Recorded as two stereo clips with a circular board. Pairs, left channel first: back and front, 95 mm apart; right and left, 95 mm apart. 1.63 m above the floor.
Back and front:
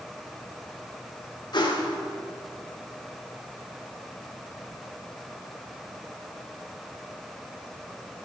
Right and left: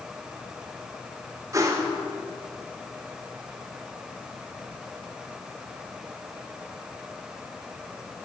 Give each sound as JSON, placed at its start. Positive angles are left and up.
{"t": 1.5, "sound": "a whoosh", "azimuth_deg": 145, "distance_m": 1.5}